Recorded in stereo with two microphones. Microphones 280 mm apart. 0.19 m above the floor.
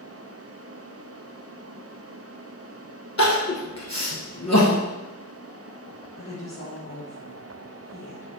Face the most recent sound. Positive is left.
turn(degrees=45)  # may be behind; listen again after turning